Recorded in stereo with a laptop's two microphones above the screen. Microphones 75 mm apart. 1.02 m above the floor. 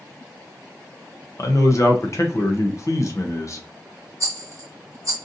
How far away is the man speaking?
About 0.6 m.